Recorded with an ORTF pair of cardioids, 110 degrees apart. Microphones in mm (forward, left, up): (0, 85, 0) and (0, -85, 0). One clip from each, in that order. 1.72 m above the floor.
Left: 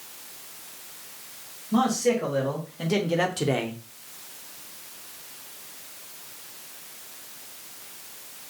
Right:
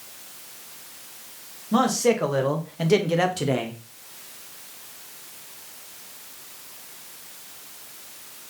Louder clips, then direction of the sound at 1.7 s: Right 3 dB; 55° right.